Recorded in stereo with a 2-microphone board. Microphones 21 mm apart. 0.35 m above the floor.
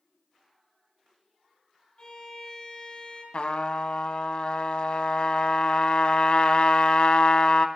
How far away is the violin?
About 3 m.